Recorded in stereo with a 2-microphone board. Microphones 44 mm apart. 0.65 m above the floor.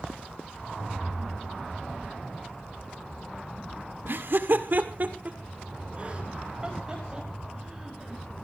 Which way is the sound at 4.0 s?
60° right (ahead or behind).